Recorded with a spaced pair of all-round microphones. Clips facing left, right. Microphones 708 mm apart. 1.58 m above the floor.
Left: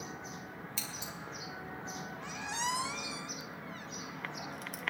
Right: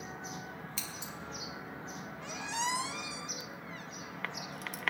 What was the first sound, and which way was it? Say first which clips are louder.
Scissors: even; 15° left (ahead or behind).